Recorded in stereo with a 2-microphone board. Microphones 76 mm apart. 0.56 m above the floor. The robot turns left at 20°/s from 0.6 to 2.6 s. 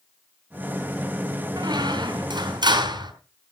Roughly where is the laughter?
No laughter in this recording.